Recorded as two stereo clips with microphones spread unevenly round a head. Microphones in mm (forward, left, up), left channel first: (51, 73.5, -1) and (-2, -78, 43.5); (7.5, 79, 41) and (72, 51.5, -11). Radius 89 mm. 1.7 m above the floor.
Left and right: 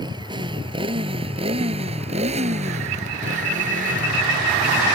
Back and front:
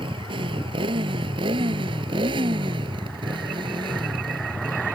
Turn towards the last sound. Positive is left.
turn(degrees=-80)